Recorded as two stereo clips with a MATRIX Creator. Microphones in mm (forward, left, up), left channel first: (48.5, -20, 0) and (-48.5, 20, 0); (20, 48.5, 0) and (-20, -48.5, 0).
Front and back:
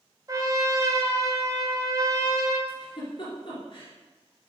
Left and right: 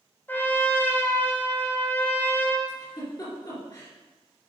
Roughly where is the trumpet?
Behind left.